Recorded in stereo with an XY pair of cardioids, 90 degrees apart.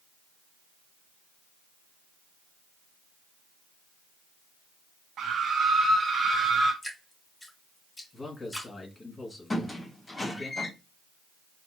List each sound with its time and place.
5.2 s a scream: 70° right, 0.5 m; by 6.7 s 40° right, 1.4 m
6.8 s dripping: 15° left, 3.5 m
8.1 s a man speaking: 25° left, 2.5 m
9.5 s a squeak: 15° left, 2.5 m